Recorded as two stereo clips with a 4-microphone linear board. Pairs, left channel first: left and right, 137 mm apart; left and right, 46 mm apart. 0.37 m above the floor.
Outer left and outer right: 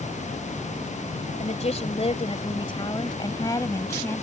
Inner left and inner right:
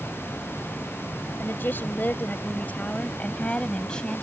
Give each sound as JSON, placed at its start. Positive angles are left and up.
{"t": 1.4, "sound": "a woman speaking", "side_deg": 55}